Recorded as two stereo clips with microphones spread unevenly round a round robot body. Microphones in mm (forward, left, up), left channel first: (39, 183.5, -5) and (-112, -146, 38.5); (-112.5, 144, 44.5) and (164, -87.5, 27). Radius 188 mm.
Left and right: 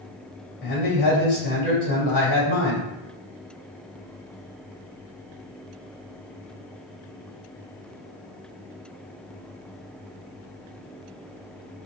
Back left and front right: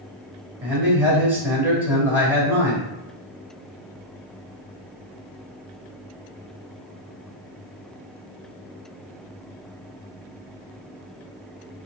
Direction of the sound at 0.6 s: 45° left.